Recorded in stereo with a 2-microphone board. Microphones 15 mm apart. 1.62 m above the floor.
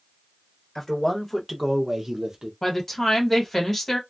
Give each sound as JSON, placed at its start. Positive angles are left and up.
{"t": 0.8, "sound": "a man speaking", "side_deg": 25, "distance_m": 1.3}
{"t": 2.6, "sound": "a woman speaking", "side_deg": 15, "distance_m": 1.3}